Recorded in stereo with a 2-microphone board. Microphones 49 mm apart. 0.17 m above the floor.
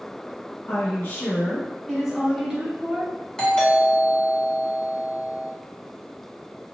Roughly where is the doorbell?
Centre.